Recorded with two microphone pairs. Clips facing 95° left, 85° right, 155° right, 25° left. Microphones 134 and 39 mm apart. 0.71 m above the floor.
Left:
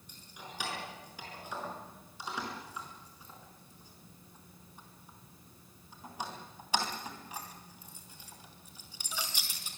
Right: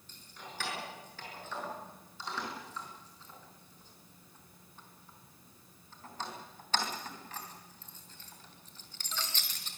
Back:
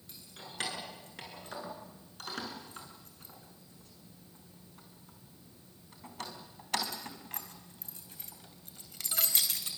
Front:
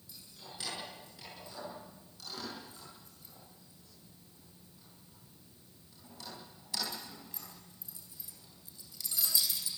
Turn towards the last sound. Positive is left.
turn(degrees=175)